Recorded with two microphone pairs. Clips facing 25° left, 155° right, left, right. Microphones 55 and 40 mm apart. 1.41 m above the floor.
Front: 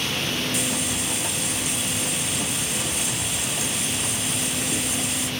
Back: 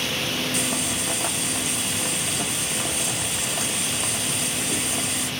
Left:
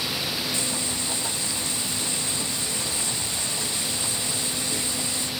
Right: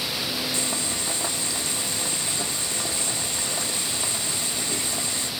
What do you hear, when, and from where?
0.5 s boiling: 125° right, 1.1 m